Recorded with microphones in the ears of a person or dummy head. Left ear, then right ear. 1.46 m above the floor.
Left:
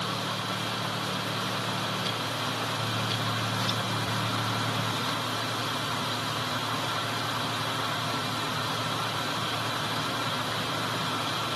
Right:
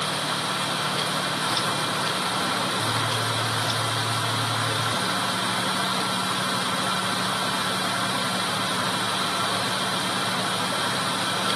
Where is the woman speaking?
No woman speaking in this recording.